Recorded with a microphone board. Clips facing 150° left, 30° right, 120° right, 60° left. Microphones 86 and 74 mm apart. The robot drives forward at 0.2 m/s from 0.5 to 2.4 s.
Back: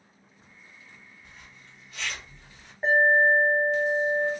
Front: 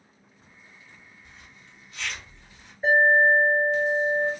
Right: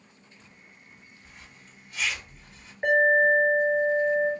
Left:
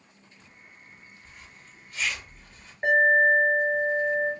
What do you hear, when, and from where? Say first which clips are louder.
1.2 s a zipper: even, left 1 dB; 155° left, 1.8 m
2.8 s an alarm: front 2 dB, even; 160° left, 2.5 m